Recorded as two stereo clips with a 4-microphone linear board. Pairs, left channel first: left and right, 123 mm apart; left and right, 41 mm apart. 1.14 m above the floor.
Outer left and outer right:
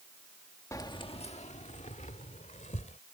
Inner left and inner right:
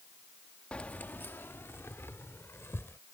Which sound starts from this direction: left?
Keys jangling, at 0.7 s.